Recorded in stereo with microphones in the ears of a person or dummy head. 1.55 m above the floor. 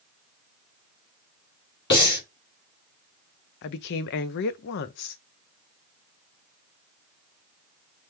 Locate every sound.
1.9 s breathing: 60° left (ahead or behind), 2.5 m
3.6 s a woman speaking: 55° left (ahead or behind), 0.5 m